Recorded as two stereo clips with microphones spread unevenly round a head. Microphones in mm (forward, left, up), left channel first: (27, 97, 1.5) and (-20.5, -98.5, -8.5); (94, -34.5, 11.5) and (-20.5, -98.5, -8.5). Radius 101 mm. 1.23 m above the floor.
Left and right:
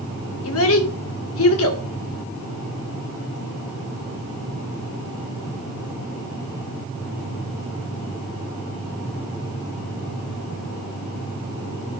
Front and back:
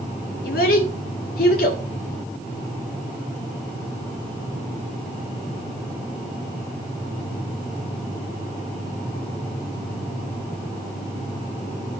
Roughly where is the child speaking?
Ahead left.